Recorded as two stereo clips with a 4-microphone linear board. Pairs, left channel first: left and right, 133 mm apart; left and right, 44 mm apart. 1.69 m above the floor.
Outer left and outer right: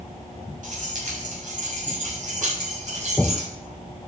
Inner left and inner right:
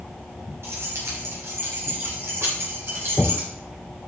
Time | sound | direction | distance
0.6 | keys jangling | 80° right | 7 m